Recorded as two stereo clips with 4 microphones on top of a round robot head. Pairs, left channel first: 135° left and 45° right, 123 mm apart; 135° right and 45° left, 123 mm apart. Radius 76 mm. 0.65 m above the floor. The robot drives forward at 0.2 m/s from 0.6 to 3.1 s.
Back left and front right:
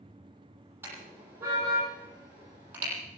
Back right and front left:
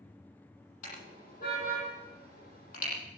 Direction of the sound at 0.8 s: 120° right.